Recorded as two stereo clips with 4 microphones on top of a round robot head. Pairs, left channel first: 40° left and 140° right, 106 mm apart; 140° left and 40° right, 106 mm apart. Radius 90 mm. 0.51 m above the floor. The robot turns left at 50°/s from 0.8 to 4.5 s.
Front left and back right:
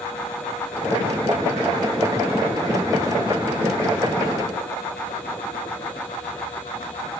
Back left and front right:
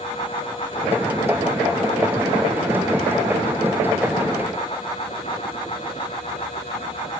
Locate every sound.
Only background noise.